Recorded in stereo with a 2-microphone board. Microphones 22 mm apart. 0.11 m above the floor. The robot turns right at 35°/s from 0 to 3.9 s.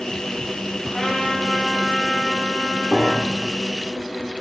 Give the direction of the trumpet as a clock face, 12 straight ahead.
11 o'clock.